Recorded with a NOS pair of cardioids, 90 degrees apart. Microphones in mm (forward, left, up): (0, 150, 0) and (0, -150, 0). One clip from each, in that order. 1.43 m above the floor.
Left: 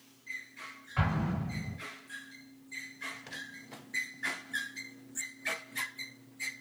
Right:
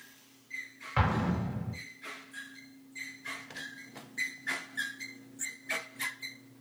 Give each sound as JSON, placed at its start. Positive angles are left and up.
{"t": 1.0, "sound": "an explosion", "azimuth_deg": -50, "distance_m": 0.9}